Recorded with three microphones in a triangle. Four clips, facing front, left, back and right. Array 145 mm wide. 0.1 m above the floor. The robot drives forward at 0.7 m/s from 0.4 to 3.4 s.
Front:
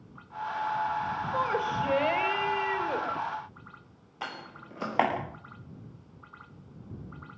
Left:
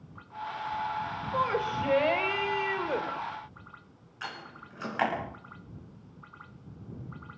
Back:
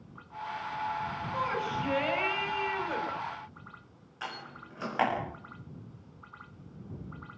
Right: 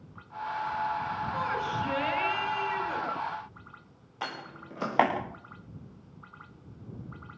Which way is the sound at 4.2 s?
60° right.